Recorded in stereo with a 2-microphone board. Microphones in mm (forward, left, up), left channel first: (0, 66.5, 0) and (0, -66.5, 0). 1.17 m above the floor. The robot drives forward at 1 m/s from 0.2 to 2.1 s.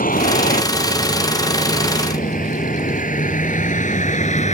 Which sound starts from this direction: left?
A vehicle, at 0.0 s.